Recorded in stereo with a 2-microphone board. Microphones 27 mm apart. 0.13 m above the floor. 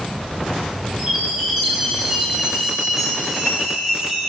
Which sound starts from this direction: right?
A chime, at 1.0 s.